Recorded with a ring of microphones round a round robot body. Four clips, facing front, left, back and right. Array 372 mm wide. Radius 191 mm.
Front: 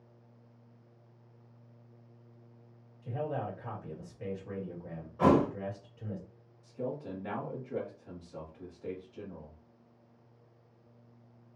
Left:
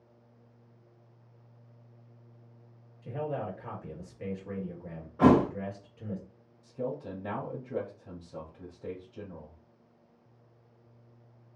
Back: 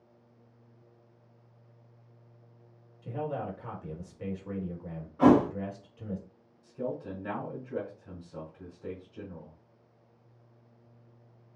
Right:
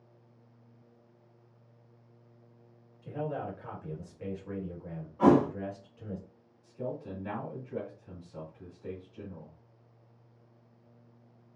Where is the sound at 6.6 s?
110° left, 1.9 m.